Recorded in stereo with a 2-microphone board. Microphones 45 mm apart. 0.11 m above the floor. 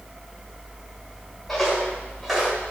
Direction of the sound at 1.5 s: Centre (ahead or behind).